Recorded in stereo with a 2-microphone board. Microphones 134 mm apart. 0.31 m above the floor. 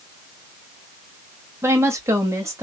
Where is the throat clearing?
No throat clearing in this recording.